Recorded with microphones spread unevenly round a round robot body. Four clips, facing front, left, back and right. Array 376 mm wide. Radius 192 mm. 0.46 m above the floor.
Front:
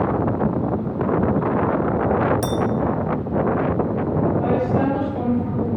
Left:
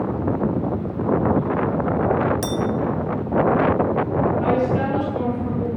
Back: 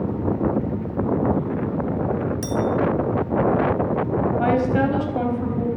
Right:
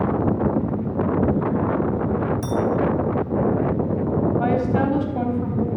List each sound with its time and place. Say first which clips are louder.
2.4 s a clink: even, front 3 dB; 80° left, 1.8 m
4.4 s a woman speaking: even, even; 145° right, 3.5 m